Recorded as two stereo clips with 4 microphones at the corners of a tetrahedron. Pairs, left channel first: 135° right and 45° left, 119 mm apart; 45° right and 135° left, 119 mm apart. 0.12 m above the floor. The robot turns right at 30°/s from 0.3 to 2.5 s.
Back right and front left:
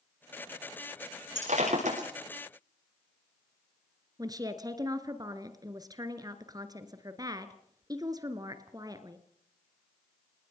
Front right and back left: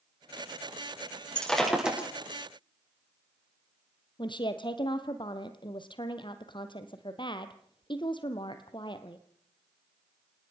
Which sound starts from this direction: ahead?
A woman speaking, at 4.2 s.